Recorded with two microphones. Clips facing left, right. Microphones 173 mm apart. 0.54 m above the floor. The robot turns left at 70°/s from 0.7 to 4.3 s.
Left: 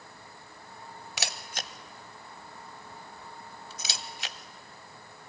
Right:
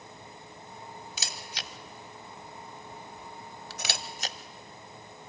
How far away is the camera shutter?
About 0.7 m.